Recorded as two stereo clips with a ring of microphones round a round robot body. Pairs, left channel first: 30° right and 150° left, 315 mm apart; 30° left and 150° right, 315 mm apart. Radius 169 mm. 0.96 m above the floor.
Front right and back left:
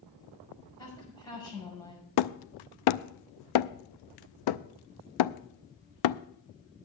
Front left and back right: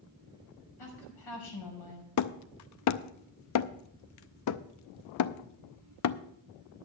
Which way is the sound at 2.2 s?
10° right.